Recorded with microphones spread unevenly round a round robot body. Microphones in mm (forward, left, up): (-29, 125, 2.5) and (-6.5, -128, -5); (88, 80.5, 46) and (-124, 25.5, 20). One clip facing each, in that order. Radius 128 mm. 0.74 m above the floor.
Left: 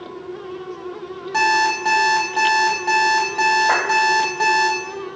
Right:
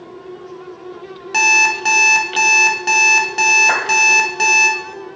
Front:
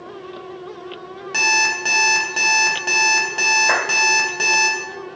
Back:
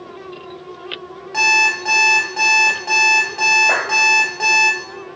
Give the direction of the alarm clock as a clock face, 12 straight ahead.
1 o'clock.